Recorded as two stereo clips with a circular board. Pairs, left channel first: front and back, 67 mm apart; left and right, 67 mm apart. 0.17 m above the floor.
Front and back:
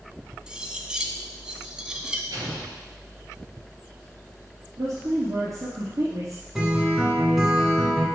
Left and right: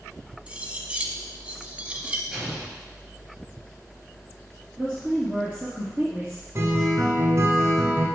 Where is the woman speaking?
170° right, 2.0 m.